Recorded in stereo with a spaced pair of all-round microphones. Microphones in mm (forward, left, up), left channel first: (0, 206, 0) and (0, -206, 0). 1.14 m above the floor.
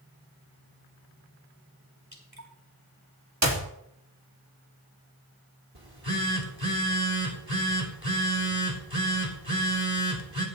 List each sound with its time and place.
2.1 s dripping: 60° right (ahead or behind), 4 m
3.4 s a clap: 45° right (ahead or behind), 2.5 m
5.8 s a phone buzzing: 70° right (ahead or behind), 3 m